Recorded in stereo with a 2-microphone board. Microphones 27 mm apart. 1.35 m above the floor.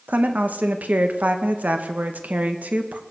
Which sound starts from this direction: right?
A woman speaking, at 0.1 s.